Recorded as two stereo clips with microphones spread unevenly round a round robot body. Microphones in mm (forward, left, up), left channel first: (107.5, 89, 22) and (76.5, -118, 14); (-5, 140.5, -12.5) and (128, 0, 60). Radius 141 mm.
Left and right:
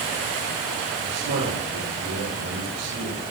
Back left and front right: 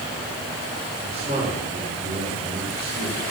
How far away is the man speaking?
About 6.5 m.